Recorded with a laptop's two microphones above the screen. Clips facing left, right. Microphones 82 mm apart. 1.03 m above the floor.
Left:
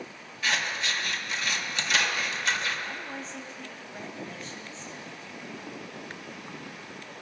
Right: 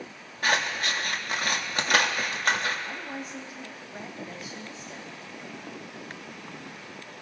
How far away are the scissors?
About 1.2 m.